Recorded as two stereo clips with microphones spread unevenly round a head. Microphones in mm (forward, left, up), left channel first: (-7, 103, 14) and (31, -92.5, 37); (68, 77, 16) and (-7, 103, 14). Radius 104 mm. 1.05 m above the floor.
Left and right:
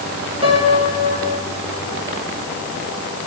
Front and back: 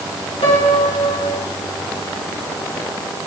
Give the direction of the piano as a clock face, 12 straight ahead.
1 o'clock.